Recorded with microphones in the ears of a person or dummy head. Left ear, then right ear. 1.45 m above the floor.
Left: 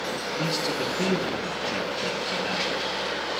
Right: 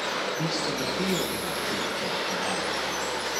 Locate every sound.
0.4 s a man speaking: 10° right (ahead or behind), 1.7 m